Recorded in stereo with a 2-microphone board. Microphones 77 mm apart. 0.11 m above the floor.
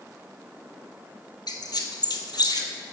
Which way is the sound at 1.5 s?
65° left (ahead or behind).